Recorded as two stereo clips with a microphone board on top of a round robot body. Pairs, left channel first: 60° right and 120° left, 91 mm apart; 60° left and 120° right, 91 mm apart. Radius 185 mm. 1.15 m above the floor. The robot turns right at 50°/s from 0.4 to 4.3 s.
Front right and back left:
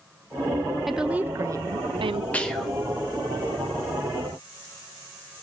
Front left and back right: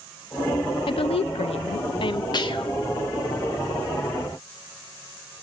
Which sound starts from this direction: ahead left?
A woman speaking, at 0.9 s.